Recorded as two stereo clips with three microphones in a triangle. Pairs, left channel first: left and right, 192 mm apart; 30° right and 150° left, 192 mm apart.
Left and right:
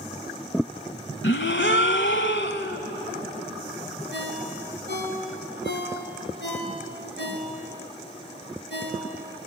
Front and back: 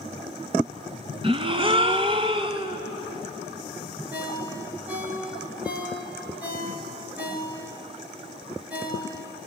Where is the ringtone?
70° left, 4 m.